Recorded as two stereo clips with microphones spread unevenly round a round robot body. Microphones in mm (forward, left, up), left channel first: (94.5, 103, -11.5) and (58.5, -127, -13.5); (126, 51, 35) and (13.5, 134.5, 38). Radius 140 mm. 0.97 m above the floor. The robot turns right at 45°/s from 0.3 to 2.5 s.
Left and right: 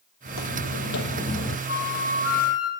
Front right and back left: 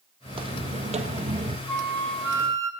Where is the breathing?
I don't hear breathing.